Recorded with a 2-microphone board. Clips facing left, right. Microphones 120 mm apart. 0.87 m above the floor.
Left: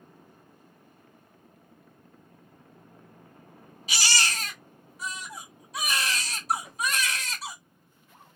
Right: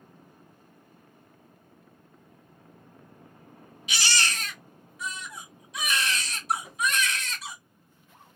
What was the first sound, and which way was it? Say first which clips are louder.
A baby crying: even; 40° left (ahead or behind).